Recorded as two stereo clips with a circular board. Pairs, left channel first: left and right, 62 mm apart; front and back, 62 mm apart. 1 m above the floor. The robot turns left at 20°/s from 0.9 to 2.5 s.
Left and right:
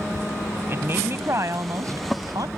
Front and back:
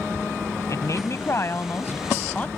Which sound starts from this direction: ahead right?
A woman speaking, at 0.7 s.